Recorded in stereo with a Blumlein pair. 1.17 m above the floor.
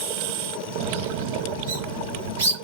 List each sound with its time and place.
0.8 s a bird: 60° right, 6 m